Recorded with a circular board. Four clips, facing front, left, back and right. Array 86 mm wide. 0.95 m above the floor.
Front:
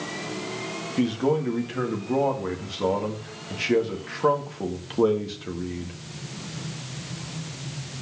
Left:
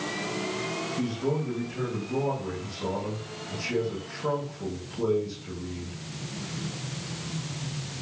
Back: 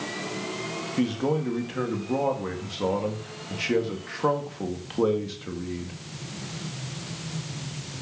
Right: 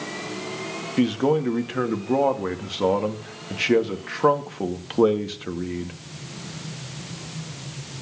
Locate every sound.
1.0 s a man speaking: 90° right, 1.8 m